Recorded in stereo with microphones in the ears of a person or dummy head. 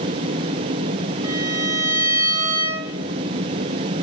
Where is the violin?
20° right (ahead or behind), 4.5 m.